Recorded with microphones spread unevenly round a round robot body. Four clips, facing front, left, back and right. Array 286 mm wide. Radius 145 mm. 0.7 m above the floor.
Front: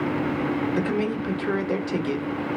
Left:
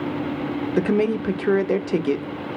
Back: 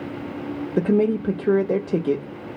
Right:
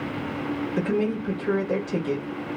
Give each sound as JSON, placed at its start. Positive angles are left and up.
{"t": 0.8, "sound": "a woman speaking", "azimuth_deg": 130, "distance_m": 0.7}